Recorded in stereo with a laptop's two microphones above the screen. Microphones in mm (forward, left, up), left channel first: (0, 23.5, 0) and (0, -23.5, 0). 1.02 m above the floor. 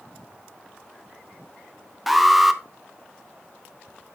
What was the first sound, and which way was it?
An alarm, centre (ahead or behind).